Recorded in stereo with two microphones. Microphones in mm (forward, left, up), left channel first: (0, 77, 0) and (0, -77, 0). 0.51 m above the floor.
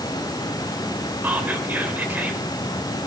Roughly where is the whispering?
Centre.